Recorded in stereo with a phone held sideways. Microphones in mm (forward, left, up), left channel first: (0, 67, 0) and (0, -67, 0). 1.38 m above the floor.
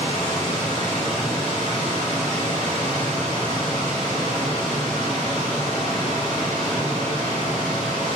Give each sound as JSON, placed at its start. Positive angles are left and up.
{"t": 0.0, "sound": "a machine running", "side_deg": -70, "distance_m": 2.0}